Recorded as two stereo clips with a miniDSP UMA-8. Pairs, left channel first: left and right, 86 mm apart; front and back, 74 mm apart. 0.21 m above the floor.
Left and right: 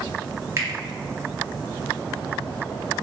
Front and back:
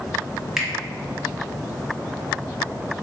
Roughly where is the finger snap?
Right.